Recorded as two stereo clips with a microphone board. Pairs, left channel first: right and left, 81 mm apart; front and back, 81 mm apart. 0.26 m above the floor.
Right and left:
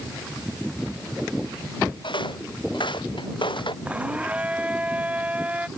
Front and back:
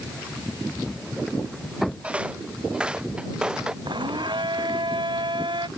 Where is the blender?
165° left.